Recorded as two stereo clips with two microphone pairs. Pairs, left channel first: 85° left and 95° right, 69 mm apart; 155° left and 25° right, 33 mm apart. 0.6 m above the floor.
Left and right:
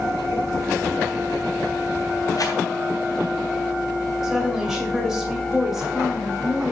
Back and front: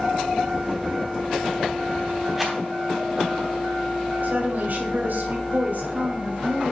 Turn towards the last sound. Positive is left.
turn(degrees=-5)